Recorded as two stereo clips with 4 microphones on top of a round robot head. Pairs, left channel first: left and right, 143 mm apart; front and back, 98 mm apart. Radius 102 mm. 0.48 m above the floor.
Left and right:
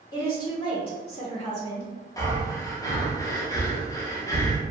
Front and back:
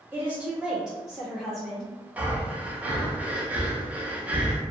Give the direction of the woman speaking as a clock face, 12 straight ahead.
8 o'clock.